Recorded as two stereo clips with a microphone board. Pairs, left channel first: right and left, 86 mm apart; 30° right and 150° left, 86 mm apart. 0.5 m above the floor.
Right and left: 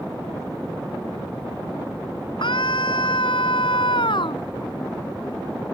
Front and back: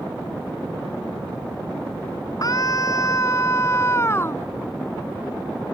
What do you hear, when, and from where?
2.4 s a scream: 75° right; by 4.4 s 95° right